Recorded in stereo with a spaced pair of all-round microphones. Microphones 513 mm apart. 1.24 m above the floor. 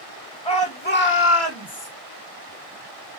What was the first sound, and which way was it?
A shout, 10° left (ahead or behind).